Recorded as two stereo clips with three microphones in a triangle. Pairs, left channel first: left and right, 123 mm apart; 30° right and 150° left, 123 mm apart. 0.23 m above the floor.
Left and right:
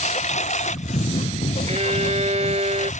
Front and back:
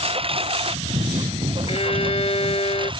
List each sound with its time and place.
0.0 s a lawn mower: 110° left; by 3.0 s 100° left
1.7 s a violin: 65° right